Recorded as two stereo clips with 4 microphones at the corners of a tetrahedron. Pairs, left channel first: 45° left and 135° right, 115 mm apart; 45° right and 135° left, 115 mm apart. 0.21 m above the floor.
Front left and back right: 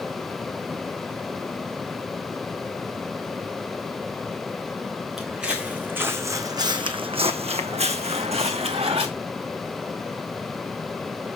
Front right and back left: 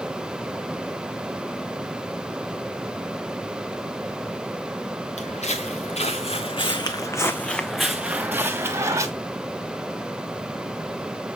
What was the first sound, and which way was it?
Footsteps, 50° right.